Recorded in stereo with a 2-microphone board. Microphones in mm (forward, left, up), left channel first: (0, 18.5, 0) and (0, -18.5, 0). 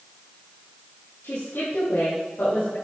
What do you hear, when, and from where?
1.2 s a woman speaking: 70° left (ahead or behind), 3.5 m